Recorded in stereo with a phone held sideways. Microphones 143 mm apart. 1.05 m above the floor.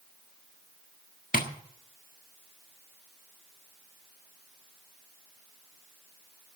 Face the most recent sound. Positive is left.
turn(degrees=75)  # may be behind; listen again after turning